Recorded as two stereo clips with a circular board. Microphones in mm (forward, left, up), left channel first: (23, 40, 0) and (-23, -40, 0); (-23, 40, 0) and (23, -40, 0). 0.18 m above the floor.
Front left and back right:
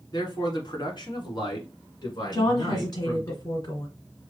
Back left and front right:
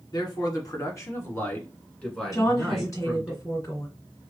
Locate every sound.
0.1 s a man speaking: 90° left, 1.6 m; by 3.3 s 20° left, 1.7 m
2.3 s a woman speaking: 80° left, 2 m